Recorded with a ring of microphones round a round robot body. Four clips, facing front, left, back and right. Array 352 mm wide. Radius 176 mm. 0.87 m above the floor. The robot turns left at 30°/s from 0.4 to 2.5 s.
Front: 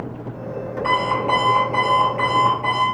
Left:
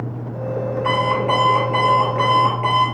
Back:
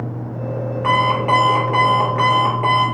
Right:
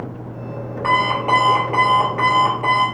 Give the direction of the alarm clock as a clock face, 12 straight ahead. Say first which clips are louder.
Right 2 dB, back 3 dB; 4 o'clock.